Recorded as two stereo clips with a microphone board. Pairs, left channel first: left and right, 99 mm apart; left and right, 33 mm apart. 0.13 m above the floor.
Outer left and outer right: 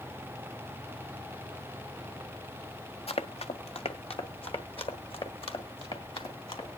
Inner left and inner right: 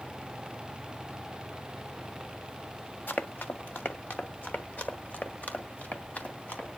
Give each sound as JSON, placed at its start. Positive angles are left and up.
{"t": 3.1, "sound": "running footsteps", "side_deg": 80, "distance_m": 0.6}